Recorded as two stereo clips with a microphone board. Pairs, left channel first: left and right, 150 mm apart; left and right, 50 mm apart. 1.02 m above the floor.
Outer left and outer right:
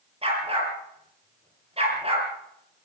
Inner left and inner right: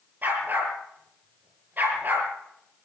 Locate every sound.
0.2 s a dog barking: 40° right (ahead or behind), 6 m